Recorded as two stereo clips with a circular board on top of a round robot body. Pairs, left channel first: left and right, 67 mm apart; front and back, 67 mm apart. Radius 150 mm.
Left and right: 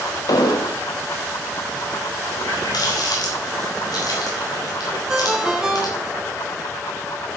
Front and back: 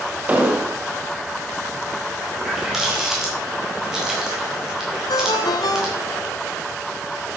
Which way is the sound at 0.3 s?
110° left.